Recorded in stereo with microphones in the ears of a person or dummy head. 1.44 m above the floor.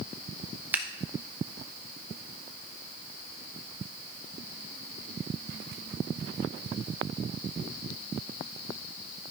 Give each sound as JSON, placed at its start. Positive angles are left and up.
{"t": 0.7, "sound": "scissors", "side_deg": -10, "distance_m": 0.9}